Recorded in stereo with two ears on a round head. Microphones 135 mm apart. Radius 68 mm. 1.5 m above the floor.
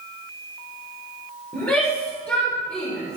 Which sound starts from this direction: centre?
A shout, at 1.5 s.